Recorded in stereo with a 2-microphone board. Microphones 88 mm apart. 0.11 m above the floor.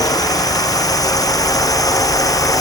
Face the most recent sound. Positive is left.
turn(degrees=40)  # may be behind; listen again after turning